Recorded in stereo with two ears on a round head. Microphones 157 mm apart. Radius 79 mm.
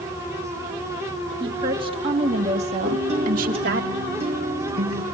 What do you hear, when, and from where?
1.4 s a woman speaking: 30° right (ahead or behind), 4.5 m; by 3.9 s 65° right (ahead or behind), 2.5 m
2.9 s a guitar: 35° right (ahead or behind), 4 m